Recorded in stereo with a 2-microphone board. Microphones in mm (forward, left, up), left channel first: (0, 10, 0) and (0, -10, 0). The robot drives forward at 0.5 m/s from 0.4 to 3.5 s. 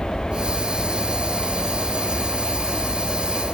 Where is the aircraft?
10° left (ahead or behind); by 3.5 s 15° right (ahead or behind).